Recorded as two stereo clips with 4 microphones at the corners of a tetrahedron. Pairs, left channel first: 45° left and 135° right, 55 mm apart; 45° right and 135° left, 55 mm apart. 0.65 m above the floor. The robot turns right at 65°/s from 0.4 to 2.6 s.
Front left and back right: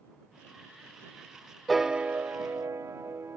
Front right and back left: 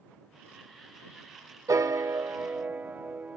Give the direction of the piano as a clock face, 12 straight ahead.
7 o'clock.